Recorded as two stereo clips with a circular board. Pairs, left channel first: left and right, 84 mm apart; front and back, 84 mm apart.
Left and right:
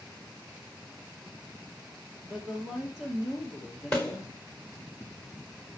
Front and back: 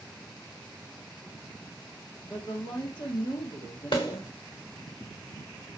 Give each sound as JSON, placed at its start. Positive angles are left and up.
{"t": 2.2, "sound": "a woman speaking", "azimuth_deg": -15, "distance_m": 2.5}
{"t": 3.9, "sound": "a snare drum", "azimuth_deg": 5, "distance_m": 4.5}